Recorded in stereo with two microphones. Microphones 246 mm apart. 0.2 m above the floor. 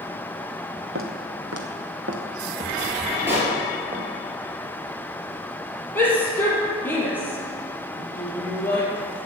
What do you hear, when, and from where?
0.9 s footsteps: 55° right (ahead or behind), 2.5 m; by 4.0 s 40° right (ahead or behind), 4.5 m
3.3 s a pop: 10° right (ahead or behind), 4.5 m
6.0 s a shout: 10° left (ahead or behind), 4.5 m